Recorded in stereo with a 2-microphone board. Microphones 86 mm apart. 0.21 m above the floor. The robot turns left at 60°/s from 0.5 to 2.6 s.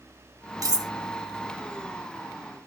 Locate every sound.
0.6 s cutlery clinking: 40° right (ahead or behind), 0.7 m; by 0.9 s 45° right (ahead or behind), 0.7 m